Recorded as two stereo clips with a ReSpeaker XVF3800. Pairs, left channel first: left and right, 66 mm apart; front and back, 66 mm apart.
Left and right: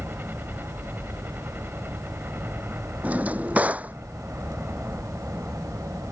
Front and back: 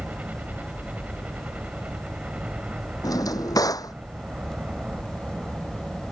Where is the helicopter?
130° right; by 6.1 s 115° right.